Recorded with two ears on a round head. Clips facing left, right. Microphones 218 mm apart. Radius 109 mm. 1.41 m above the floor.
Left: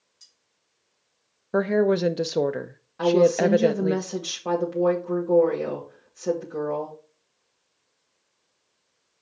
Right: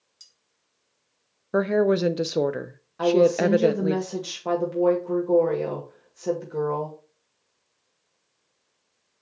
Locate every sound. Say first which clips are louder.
0.2 s cutlery clinking: even; 60° right (ahead or behind), 3 m
1.5 s a woman speaking: even; 5° right (ahead or behind), 0.6 m
3.0 s a woman speaking: even; centre (ahead or behind), 2 m